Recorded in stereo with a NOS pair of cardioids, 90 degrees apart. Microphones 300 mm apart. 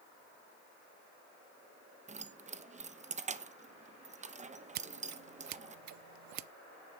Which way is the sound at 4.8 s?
70° right.